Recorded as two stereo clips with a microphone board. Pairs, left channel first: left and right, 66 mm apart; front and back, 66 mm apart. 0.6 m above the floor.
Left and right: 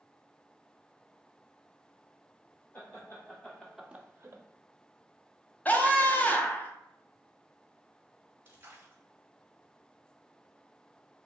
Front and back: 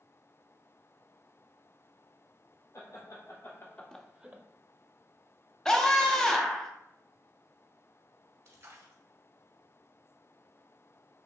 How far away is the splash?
About 1.3 m.